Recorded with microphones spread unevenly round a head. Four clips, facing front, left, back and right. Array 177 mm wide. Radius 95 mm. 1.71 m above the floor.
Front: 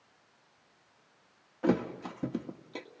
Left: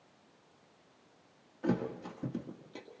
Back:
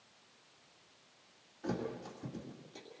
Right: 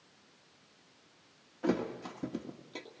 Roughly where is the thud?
Ahead.